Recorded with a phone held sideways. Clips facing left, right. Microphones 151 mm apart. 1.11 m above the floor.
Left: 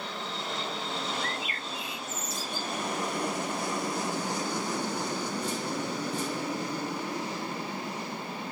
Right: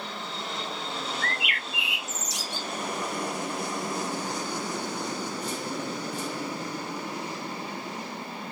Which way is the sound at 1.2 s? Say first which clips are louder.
Right 1 dB; 75° right (ahead or behind).